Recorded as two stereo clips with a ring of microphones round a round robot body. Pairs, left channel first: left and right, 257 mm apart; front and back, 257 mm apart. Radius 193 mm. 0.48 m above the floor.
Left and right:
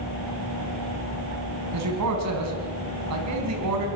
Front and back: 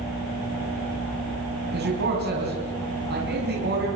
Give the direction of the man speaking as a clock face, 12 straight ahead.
4 o'clock.